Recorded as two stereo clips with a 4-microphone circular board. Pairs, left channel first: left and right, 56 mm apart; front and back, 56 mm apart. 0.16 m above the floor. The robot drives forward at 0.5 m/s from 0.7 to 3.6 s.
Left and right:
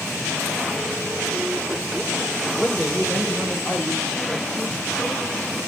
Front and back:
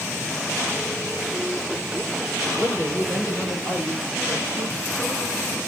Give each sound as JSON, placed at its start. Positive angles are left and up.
{"t": 2.6, "sound": "a woman speaking", "azimuth_deg": 150, "distance_m": 5.5}